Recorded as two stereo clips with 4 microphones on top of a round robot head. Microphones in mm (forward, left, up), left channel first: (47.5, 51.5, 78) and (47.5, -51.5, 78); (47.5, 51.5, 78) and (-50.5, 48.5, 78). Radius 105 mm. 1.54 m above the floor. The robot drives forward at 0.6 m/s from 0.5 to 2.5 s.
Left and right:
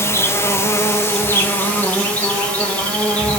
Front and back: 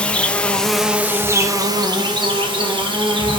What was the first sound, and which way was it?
An insect, 65° left.